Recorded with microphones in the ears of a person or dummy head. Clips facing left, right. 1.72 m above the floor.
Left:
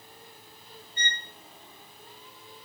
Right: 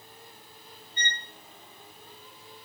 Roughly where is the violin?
Centre.